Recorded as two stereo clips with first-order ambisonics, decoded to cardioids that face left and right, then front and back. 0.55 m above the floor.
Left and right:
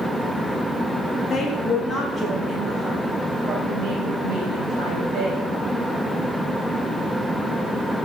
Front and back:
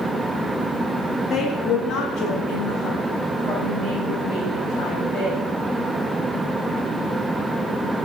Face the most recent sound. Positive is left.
turn(degrees=-35)